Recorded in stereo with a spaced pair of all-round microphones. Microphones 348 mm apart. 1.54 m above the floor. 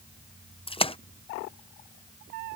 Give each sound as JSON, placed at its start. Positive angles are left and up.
{"t": 0.7, "sound": "a splash", "side_deg": 15}